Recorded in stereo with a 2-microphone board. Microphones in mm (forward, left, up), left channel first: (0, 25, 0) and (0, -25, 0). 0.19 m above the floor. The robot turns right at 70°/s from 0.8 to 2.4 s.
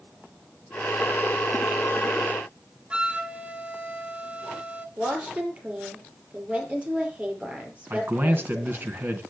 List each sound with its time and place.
2.9 s a flute: 20° right (ahead or behind), 1.0 m
5.0 s a woman speaking: 25° right (ahead or behind), 5 m
7.9 s a man speaking: 45° right (ahead or behind), 2.5 m